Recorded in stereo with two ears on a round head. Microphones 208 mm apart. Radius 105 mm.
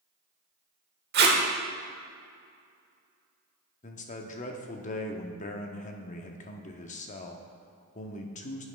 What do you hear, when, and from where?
1.1 s tape being pulled: 45° right (ahead or behind), 1.0 m
3.8 s a man speaking: 30° left (ahead or behind), 0.7 m